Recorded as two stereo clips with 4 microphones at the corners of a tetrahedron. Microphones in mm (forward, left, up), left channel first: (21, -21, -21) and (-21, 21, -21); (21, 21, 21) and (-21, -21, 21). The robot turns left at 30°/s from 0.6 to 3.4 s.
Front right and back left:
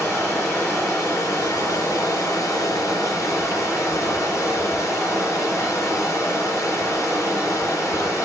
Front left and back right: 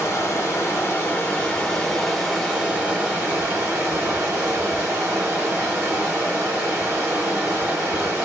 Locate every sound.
0.0 s running water: straight ahead, 5 m; by 8.3 s 85° right, 5 m